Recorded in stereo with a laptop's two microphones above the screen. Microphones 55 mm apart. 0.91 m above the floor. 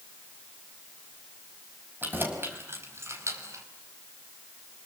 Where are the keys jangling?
40° right (ahead or behind), 4 m; by 3.6 s 65° right (ahead or behind), 4 m.